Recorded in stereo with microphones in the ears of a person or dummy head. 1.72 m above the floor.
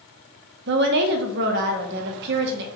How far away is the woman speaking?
About 0.6 m.